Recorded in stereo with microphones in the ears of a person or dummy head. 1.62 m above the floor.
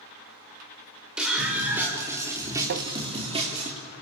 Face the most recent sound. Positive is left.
turn(degrees=-70)  # may be behind; listen again after turning